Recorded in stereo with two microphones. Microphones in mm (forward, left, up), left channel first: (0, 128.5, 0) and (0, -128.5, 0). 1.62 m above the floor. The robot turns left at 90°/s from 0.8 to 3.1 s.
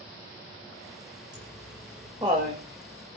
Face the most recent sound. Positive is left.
turn(degrees=-80)